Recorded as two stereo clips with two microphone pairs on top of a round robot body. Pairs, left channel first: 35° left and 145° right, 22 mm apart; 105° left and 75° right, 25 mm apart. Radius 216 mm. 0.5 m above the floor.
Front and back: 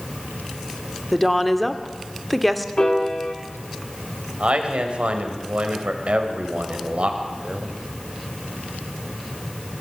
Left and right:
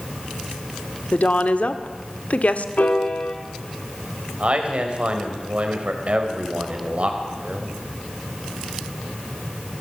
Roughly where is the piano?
Left.